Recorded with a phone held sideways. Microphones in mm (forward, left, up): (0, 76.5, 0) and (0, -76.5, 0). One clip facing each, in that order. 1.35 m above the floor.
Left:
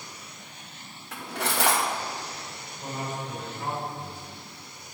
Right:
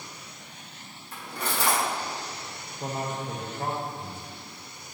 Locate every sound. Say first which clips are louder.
1.1 s cutlery clinking: left 3 dB; 65° left (ahead or behind), 1.0 m
2.8 s a man speaking: right 2 dB; 45° right (ahead or behind), 1.7 m